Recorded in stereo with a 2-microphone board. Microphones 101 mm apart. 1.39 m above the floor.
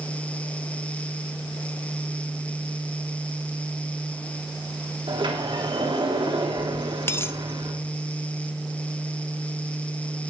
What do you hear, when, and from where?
5.1 s a sliding door: 60° right (ahead or behind), 3.5 m
7.1 s a dropped coin: 25° left (ahead or behind), 0.7 m